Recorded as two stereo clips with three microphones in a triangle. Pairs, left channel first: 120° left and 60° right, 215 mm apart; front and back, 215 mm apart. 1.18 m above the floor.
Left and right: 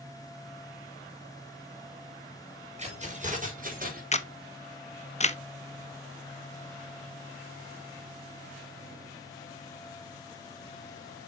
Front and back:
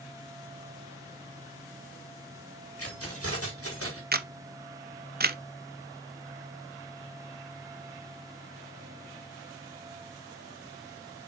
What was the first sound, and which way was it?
Keys jangling, straight ahead.